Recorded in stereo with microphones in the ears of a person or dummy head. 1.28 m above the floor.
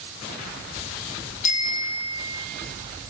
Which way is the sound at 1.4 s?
45° left (ahead or behind).